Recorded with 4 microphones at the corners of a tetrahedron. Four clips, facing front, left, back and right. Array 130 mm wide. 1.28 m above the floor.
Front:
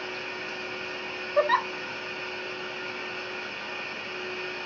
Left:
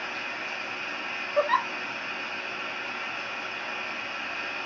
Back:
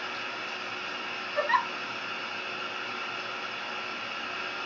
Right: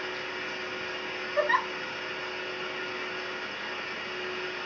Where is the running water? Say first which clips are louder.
Even, front 1 dB; 105° left, 2 m.